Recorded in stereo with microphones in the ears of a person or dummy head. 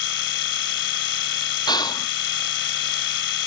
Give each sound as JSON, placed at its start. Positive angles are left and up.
{"t": 0.0, "sound": "a machine running", "side_deg": 80}
{"t": 1.7, "sound": "whispering", "side_deg": 25}